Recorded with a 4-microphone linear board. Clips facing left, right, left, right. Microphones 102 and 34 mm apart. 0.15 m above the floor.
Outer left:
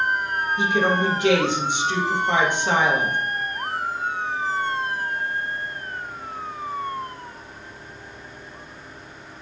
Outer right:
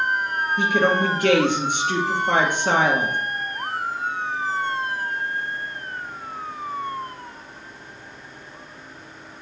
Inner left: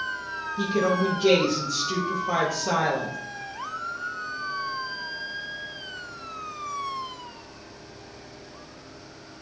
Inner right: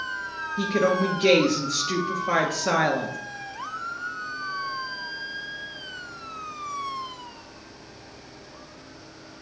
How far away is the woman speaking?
About 2.5 m.